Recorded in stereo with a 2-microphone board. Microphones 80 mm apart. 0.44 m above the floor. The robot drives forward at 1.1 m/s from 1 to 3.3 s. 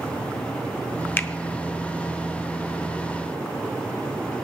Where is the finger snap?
25° left (ahead or behind), 0.6 m.